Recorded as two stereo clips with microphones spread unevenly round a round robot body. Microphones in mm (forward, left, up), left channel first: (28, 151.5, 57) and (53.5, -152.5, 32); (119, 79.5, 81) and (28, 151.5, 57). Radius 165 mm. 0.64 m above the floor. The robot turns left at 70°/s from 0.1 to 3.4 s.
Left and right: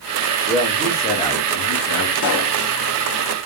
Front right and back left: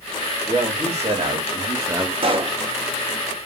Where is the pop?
135° left, 0.8 m; by 2.6 s 110° left, 0.8 m.